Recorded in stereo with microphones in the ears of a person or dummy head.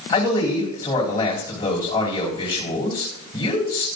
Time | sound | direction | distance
0.1 | a man speaking | 30° left (ahead or behind) | 4 m